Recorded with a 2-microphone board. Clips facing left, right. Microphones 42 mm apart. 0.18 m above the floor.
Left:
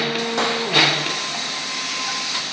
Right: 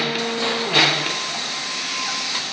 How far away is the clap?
About 6.5 m.